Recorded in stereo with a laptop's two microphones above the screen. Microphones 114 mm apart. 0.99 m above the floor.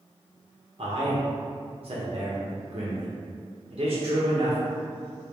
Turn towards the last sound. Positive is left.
turn(degrees=-55)  # may be behind; listen again after turning